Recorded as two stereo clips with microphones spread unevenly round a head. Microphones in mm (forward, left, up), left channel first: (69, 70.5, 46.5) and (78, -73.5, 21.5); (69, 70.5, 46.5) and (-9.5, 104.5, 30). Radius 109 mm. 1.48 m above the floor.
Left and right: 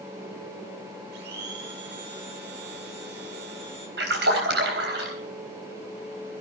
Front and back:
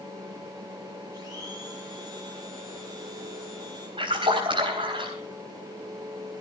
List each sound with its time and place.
1.1 s a blender: 95° right, 5.5 m
4.0 s a splash: 135° right, 3.5 m